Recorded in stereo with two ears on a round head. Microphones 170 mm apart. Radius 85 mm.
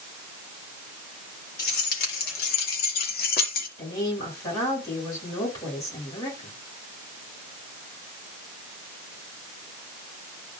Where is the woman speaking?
20° left (ahead or behind), 7.5 m.